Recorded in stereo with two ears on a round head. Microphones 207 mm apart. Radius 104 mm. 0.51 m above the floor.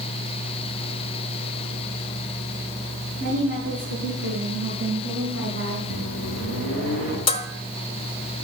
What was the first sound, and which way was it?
A woman speaking, 50° right (ahead or behind).